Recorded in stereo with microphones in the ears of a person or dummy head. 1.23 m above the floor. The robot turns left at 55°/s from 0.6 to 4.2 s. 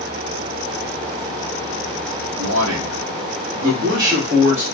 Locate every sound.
2.4 s a man speaking: 65° right, 1.4 m; by 4.8 s 170° right, 1.4 m